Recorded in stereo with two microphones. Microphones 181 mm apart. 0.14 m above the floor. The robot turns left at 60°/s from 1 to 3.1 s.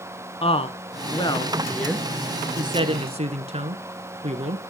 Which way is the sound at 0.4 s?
30° left (ahead or behind).